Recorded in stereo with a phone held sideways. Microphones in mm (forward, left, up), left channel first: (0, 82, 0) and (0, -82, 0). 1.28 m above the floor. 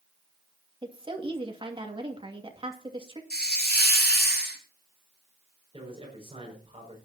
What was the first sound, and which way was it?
A woman speaking, 35° right (ahead or behind).